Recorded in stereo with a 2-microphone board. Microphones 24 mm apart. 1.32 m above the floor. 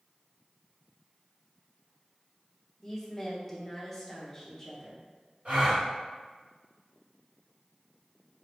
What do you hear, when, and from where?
2.8 s a woman speaking: 15° left (ahead or behind), 0.9 m
5.5 s a gasp: 55° right (ahead or behind), 1.8 m